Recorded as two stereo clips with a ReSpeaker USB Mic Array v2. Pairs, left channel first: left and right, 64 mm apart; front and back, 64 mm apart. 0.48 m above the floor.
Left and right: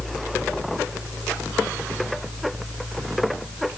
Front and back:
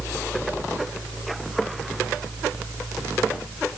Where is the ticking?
No ticking in this recording.